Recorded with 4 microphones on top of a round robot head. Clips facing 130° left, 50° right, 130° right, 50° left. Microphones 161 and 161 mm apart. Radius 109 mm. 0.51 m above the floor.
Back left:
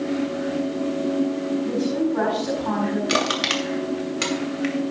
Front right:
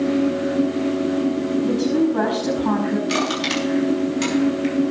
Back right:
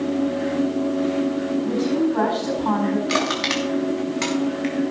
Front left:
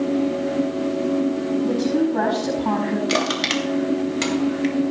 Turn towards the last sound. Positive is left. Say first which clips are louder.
# front right 2 dB, front left 1 dB
turn(degrees=110)